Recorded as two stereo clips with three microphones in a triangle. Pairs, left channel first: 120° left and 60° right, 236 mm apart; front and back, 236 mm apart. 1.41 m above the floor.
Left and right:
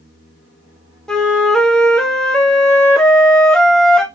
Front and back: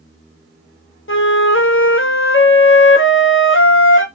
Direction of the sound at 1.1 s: 35° left.